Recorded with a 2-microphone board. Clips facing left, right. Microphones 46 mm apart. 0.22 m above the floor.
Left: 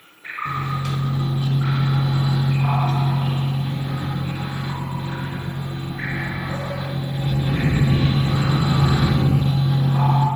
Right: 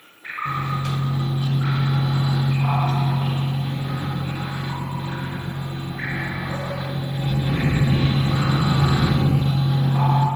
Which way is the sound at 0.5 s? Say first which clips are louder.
Even; 15° right (ahead or behind).